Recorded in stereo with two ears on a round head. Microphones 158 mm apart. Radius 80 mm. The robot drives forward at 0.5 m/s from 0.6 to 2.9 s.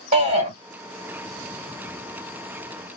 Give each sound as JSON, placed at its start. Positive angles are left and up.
{"t": 0.1, "sound": "a shout", "side_deg": -30, "distance_m": 1.4}